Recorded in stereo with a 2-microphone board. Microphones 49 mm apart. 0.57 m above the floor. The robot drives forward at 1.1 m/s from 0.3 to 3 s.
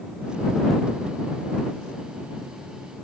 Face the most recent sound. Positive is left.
No sound to turn to.